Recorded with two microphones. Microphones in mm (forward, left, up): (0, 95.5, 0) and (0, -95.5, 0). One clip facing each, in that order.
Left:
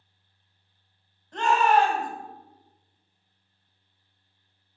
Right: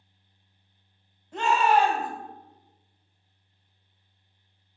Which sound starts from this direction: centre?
A shout, at 1.3 s.